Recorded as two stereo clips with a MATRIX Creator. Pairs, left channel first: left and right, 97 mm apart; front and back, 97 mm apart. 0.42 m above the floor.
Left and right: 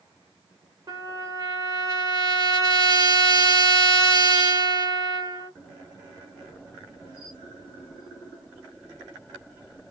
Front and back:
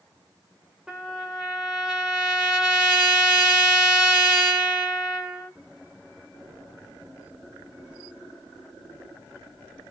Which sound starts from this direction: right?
A trumpet, at 0.9 s.